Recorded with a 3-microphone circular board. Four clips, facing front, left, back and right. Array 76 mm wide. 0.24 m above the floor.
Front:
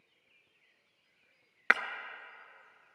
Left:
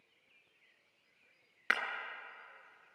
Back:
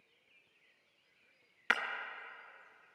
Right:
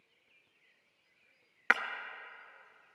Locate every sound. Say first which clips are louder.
1.7 s breaking glass: right 5 dB, front 5 dB; 20° right, 0.7 m